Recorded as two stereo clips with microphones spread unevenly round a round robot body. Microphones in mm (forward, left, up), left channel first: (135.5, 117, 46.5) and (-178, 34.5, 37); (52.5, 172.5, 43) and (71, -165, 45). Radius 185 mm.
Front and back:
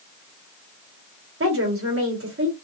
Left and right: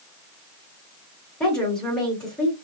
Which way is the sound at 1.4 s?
Straight behind.